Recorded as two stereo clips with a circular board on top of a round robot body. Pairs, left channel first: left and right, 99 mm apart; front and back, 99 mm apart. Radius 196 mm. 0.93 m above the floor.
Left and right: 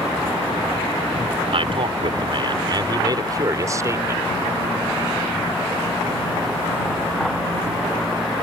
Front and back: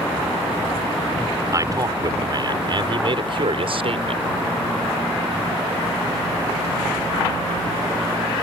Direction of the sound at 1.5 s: 125° right.